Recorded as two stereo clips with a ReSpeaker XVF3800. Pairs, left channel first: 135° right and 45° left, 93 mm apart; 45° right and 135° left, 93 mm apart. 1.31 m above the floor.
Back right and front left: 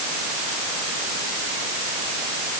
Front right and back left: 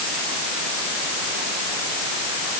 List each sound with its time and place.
Only background noise.